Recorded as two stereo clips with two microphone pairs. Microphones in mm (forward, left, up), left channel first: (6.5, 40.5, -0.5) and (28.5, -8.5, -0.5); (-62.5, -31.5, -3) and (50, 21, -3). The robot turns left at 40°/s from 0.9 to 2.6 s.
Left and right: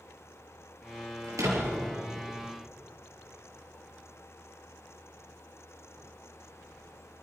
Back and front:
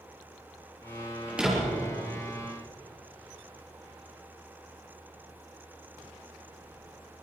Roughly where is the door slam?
Ahead right.